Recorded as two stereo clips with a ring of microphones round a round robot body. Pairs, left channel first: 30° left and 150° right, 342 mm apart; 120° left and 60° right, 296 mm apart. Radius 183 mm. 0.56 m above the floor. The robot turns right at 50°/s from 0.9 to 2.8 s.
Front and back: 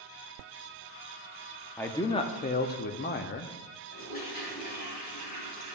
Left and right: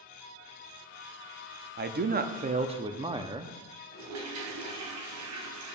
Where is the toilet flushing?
35° right, 2 m.